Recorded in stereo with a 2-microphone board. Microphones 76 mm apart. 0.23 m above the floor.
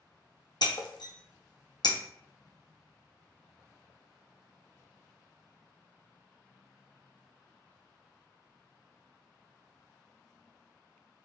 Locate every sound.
0.6 s breaking glass: 70° left (ahead or behind), 0.7 m